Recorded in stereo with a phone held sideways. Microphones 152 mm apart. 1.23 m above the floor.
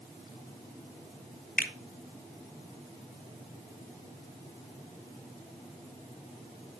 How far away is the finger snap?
About 0.8 m.